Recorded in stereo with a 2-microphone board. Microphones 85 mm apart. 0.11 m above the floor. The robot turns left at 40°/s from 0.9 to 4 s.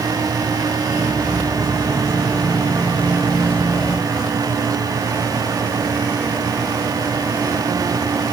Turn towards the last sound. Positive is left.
No sound to turn to.